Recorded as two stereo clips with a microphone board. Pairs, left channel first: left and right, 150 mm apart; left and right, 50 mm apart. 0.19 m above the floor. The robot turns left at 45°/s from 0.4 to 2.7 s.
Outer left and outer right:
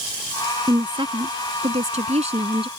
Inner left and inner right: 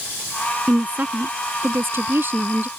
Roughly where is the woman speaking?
Ahead right.